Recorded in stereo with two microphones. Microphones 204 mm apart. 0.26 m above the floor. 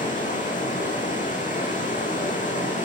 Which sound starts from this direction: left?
Running water, at 0.0 s.